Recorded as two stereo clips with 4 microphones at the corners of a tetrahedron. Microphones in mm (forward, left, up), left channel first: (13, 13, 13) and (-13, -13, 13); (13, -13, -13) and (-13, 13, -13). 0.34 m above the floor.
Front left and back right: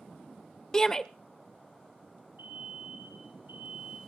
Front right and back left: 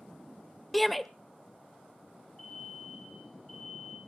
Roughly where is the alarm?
Behind right.